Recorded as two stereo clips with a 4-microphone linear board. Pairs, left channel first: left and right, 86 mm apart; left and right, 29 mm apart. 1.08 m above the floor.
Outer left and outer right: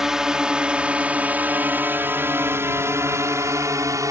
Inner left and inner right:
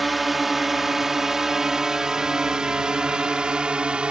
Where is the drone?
5° right (ahead or behind); by 4.1 s 35° right (ahead or behind).